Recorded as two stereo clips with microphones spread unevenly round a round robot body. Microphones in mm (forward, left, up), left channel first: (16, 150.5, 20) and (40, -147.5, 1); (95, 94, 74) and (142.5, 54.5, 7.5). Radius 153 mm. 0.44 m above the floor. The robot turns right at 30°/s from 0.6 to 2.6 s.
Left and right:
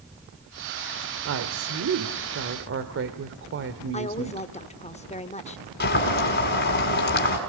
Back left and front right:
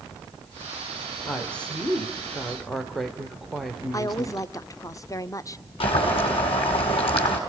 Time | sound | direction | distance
1.2 | a woman speaking | 100° right | 1.7 m
3.9 | a woman speaking | 40° left | 1.3 m
5.8 | boiling | 155° left | 5 m